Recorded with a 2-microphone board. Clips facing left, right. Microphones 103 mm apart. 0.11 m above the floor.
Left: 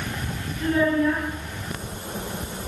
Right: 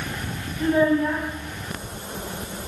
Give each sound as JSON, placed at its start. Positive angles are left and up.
{"t": 0.6, "sound": "a child speaking", "side_deg": -20, "distance_m": 1.5}